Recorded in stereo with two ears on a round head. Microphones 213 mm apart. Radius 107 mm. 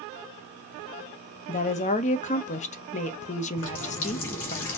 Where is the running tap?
60° left (ahead or behind), 1.9 m.